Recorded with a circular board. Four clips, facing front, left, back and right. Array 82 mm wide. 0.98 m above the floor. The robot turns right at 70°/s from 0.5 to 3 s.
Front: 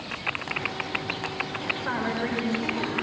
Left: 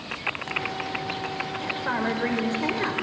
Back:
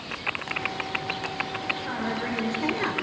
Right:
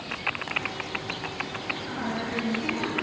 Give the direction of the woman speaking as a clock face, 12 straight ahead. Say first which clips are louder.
Left 7 dB, front 5 dB; 11 o'clock.